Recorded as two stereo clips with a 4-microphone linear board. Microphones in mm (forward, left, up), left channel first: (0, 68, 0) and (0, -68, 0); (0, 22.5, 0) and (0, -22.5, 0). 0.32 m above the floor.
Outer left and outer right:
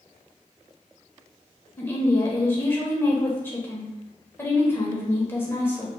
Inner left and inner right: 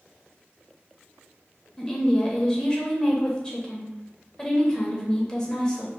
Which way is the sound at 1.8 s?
15° left (ahead or behind).